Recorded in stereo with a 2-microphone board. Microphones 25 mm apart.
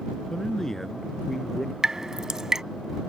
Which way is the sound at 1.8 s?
20° right (ahead or behind).